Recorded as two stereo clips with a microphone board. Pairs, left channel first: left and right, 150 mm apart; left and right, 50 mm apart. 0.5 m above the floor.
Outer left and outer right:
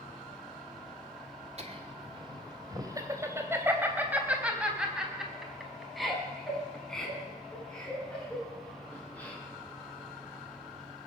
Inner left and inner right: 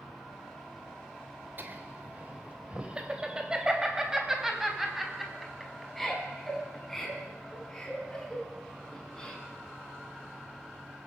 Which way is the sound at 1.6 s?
45° right (ahead or behind).